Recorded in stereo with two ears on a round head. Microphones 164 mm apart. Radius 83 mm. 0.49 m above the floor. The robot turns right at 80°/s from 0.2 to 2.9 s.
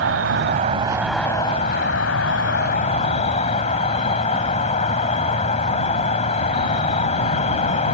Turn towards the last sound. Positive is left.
turn(degrees=140)